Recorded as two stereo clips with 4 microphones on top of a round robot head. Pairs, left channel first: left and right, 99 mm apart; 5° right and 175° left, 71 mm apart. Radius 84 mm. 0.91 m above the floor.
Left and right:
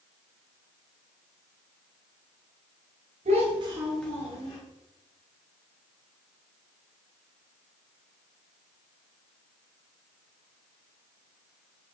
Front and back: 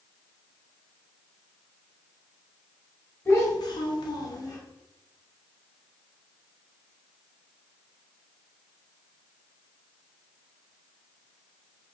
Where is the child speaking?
70° right, 0.8 m; by 4.6 s 35° left, 1.1 m.